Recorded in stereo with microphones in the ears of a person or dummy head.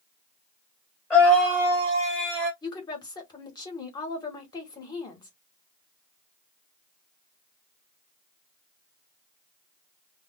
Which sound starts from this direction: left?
A woman speaking, at 2.6 s.